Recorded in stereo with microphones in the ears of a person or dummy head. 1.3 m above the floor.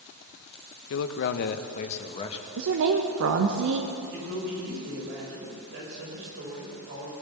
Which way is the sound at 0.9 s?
70° left (ahead or behind).